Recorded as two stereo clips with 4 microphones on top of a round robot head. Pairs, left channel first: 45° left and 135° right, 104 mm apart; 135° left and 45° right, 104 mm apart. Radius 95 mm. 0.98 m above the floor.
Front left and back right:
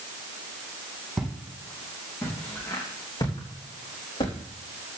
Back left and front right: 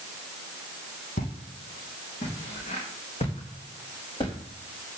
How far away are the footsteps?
About 3 m.